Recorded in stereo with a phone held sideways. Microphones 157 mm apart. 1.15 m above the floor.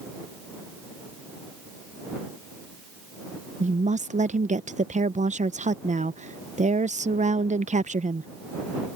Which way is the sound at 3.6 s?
55° right (ahead or behind).